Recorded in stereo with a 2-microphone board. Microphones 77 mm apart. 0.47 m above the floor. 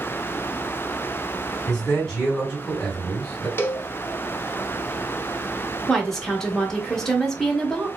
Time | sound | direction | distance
1.7 | a man speaking | 5° left (ahead or behind) | 1.7 m
3.6 | a cowbell | 30° left (ahead or behind) | 0.5 m
5.9 | a woman speaking | 5° left (ahead or behind) | 0.7 m